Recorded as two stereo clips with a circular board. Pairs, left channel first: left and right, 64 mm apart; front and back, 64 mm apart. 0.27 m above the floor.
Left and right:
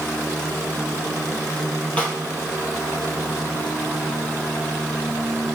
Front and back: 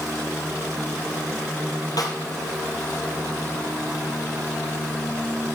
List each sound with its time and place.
2.0 s a snare drum: 20° left, 3 m